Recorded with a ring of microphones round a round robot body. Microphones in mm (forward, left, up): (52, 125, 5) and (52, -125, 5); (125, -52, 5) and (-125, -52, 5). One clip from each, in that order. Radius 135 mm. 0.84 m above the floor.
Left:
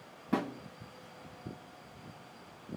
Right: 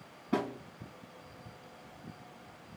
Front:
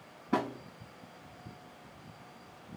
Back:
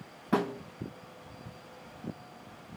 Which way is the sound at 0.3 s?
155° left.